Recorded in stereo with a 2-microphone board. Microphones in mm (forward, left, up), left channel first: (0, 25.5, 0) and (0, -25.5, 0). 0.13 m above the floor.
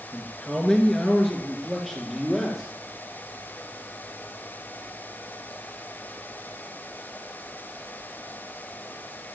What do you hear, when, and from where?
0.1 s a man speaking: 15° left (ahead or behind), 1.8 m; by 2.7 s centre (ahead or behind), 4 m